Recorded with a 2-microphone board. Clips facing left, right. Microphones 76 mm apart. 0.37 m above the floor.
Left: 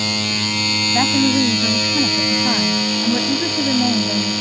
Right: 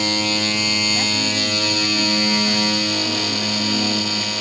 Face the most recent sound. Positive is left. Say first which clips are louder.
# left 7 dB
turn(degrees=45)  # may be behind; listen again after turning